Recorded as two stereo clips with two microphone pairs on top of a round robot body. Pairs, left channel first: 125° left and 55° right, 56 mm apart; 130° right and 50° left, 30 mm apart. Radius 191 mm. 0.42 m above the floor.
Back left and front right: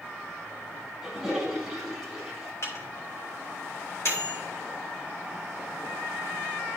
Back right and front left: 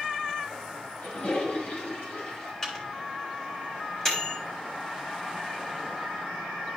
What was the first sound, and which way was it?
A toilet flushing, 135° right.